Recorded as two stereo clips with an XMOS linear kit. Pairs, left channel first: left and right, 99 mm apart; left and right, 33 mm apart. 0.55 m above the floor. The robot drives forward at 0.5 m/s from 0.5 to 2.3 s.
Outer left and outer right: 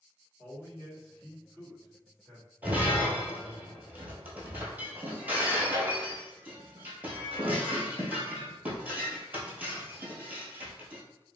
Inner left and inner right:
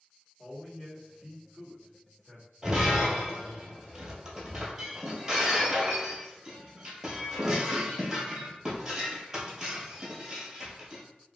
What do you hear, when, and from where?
0.4 s a man speaking: 25° left (ahead or behind), 1.2 m; by 2.5 s 20° left (ahead or behind), 1.5 m
2.6 s breaking glass: 20° right (ahead or behind), 1.0 m